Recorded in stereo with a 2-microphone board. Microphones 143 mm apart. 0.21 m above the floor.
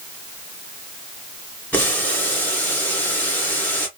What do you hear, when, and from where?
1.7 s boiling: 10° left (ahead or behind), 2 m